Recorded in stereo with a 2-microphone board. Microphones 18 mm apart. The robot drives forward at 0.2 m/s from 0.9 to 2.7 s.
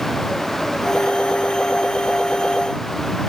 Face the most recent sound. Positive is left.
No sound to turn to.